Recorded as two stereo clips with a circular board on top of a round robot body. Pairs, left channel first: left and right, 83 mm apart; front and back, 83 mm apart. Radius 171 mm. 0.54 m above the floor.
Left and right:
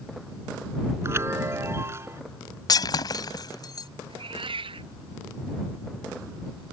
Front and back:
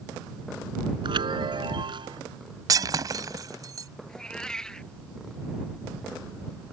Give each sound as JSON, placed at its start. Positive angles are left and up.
{"t": 1.0, "sound": "a chime", "azimuth_deg": -150}
{"t": 2.7, "sound": "breaking glass", "azimuth_deg": 135}
{"t": 4.1, "sound": "a cat meowing", "azimuth_deg": -80}